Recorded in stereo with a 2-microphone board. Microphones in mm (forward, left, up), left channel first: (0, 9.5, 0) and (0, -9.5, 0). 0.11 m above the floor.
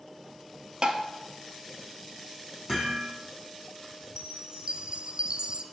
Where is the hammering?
25° right (ahead or behind), 3 m.